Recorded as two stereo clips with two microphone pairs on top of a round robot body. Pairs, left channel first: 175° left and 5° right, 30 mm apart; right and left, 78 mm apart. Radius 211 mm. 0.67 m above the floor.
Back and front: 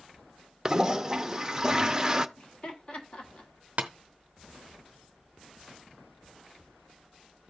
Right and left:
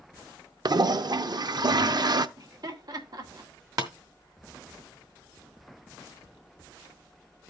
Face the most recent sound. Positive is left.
turn(degrees=45)